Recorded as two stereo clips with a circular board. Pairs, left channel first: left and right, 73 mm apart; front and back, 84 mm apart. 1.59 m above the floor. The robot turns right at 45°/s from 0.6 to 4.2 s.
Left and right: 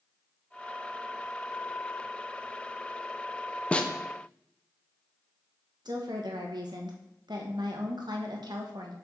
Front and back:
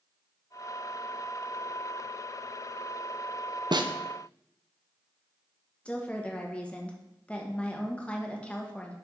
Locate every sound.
3.7 s a snare drum: 160° left, 0.6 m; by 3.9 s 170° left, 0.6 m
5.8 s a woman speaking: 75° right, 1.4 m